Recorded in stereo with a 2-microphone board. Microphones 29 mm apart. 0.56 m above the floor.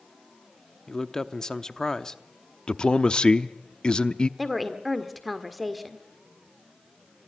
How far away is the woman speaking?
About 1.8 m.